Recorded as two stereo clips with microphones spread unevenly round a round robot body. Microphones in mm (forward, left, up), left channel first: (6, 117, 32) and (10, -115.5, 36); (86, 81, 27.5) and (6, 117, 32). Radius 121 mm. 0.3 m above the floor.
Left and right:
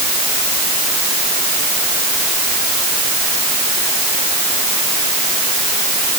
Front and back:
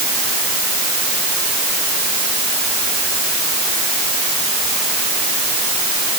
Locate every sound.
Only background noise.